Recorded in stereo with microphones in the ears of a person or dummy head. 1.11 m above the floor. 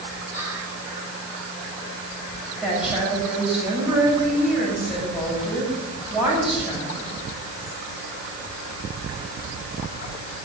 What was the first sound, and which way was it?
Whispering, 10° right (ahead or behind).